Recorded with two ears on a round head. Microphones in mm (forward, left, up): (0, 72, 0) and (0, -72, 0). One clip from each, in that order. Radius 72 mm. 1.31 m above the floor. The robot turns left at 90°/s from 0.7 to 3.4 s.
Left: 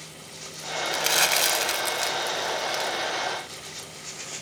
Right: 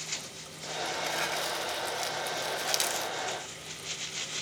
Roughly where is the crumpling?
Behind left.